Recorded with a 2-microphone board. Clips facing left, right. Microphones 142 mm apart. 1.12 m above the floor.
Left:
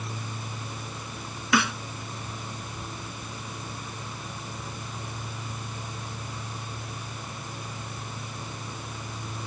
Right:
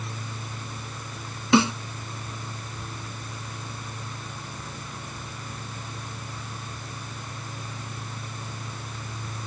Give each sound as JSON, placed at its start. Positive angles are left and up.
{"t": 1.5, "sound": "a snare drum", "side_deg": -25}